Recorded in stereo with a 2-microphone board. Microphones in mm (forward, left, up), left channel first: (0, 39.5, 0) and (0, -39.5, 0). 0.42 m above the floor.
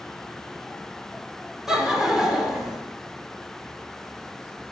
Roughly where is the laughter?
Centre.